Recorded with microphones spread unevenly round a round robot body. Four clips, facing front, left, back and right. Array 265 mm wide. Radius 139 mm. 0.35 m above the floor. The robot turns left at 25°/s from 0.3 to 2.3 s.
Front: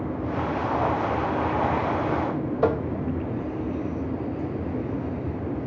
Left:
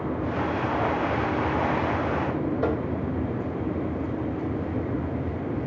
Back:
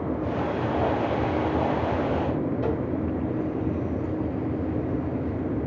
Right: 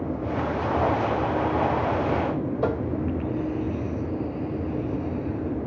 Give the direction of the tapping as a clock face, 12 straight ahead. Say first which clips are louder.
Right 2 dB, front 4 dB; 12 o'clock.